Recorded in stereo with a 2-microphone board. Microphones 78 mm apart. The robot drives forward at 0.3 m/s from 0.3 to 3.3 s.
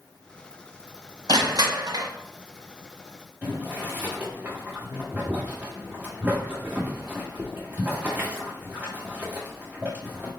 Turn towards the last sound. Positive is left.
turn(degrees=-20)  # may be behind; listen again after turning